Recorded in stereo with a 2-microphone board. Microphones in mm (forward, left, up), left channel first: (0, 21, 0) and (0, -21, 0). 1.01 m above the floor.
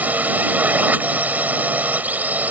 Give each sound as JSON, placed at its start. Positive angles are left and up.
{"t": 0.0, "sound": "a drone", "side_deg": -35}